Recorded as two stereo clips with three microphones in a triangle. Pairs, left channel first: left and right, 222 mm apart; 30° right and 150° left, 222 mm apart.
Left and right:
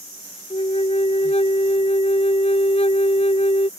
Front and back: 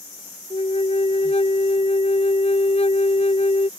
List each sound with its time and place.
0.5 s a flute: 30° left